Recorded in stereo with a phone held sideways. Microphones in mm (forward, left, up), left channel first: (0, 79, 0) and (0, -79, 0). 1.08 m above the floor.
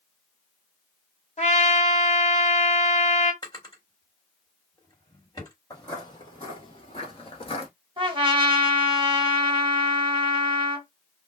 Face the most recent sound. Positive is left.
turn(degrees=-30)  # may be behind; listen again after turning